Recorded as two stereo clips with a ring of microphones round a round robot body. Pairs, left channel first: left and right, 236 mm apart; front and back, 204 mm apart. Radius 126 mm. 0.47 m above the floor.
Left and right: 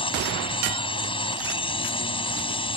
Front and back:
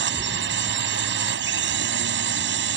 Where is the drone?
155° left.